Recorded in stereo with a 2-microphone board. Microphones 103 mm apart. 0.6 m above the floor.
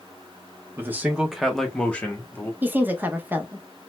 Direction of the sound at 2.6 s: 20° right (ahead or behind).